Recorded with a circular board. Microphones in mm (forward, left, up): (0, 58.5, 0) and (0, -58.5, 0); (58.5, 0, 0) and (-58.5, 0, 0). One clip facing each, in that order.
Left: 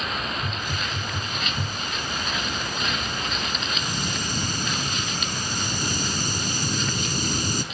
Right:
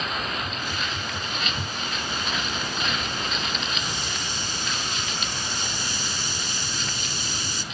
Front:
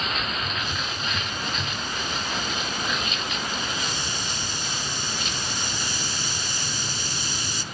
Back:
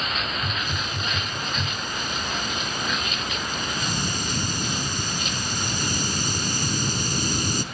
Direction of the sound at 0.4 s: 135° left.